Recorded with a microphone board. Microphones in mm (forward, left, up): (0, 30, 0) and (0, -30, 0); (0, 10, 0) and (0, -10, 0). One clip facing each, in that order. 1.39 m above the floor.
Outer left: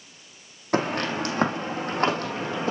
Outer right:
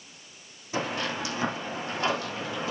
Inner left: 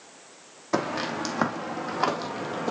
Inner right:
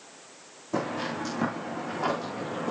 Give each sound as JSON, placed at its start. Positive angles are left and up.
{"t": 0.7, "sound": "footsteps", "side_deg": 60, "distance_m": 3.0}